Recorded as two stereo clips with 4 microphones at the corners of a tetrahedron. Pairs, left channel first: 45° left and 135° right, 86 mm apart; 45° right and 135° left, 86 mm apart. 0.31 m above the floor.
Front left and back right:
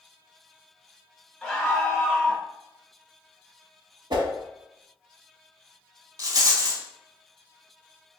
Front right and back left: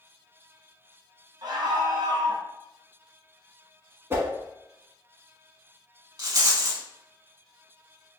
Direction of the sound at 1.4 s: 140° left.